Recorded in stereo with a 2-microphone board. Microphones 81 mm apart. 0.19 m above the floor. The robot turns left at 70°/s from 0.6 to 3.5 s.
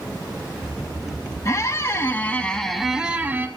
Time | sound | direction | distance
1.4 | a squeak | 90° left | 0.7 m